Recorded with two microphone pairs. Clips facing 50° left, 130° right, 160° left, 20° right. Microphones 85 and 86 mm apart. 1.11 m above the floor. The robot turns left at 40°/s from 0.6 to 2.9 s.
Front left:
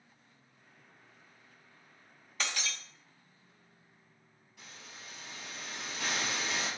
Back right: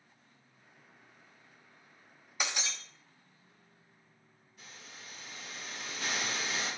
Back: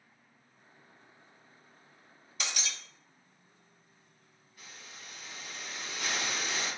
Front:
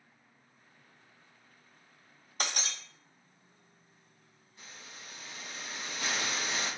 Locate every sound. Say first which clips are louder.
2.4 s breaking glass: back right 1 dB, front 3 dB; 55° right, 0.8 m; by 2.8 s 70° right, 0.8 m
4.6 s a hiss: front left 1 dB, even; 45° left, 4 m